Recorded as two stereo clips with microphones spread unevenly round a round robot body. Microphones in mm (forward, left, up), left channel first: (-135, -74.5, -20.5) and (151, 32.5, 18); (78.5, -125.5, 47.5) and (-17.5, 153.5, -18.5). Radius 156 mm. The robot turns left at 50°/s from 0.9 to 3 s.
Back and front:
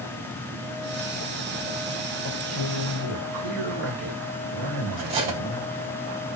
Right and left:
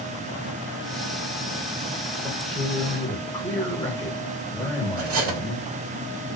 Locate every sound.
2.2 s a man speaking: 50° left, 1.3 m; by 5.7 s 15° left, 1.3 m
5.0 s cutlery clinking: 60° left, 0.9 m